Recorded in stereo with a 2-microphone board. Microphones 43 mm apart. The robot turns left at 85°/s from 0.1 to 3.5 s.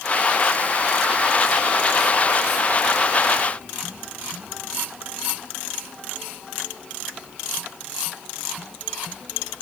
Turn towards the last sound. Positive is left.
No sound to turn to.